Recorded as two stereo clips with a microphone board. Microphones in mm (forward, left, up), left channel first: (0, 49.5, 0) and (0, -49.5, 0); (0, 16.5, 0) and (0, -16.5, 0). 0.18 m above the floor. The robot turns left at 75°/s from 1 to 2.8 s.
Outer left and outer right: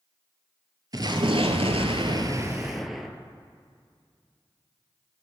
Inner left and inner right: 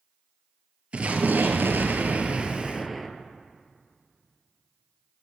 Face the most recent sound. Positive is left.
turn(degrees=180)